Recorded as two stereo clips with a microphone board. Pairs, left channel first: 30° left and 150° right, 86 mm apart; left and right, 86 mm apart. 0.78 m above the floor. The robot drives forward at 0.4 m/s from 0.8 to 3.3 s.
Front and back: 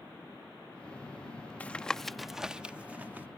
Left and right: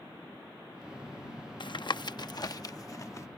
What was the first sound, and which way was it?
Tapping, 100° left.